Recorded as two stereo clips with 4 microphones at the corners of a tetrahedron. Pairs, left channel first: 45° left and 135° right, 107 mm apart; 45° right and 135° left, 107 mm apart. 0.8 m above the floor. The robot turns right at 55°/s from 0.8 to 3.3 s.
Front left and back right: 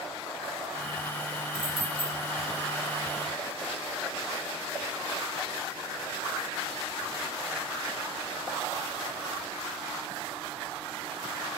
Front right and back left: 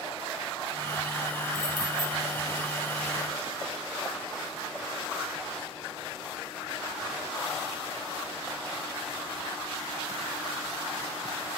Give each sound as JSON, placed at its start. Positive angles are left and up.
{"t": 1.5, "sound": "keys jangling", "azimuth_deg": -115, "distance_m": 0.7}